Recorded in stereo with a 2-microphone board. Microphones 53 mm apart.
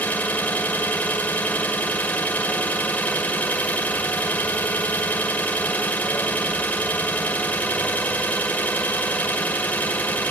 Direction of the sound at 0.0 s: 35° left (ahead or behind).